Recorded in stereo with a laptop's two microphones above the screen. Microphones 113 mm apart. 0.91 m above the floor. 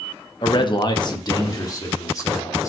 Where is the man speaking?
45° left (ahead or behind), 0.9 m; by 2.7 s 30° left (ahead or behind), 3 m.